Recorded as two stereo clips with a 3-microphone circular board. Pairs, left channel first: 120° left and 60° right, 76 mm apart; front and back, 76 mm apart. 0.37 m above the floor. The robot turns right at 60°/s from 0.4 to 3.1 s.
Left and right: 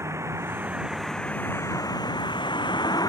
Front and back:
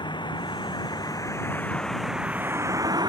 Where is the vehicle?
5° right; by 3.1 s 155° left.